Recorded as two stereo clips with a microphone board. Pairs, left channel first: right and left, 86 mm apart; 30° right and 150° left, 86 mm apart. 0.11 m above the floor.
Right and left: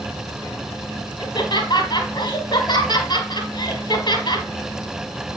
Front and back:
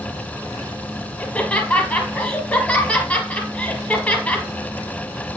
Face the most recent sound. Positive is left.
turn(degrees=-100)